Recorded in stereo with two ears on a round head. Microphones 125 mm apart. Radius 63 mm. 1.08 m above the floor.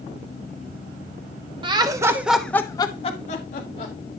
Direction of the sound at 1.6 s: 35° right (ahead or behind).